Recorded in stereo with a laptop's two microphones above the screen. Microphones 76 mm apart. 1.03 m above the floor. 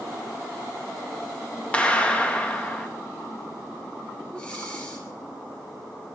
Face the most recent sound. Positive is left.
turn(degrees=15)  # may be behind; listen again after turning